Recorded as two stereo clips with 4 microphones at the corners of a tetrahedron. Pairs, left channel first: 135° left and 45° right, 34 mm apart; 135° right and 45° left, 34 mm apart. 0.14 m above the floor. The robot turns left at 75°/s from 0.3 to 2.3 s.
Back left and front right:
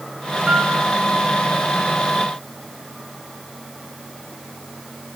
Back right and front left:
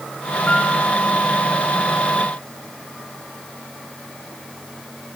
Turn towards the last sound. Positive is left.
turn(degrees=130)